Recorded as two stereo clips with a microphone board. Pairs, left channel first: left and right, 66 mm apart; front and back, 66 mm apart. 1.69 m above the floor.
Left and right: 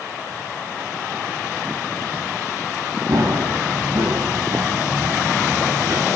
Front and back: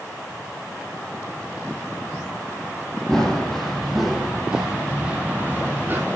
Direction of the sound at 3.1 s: 80° right.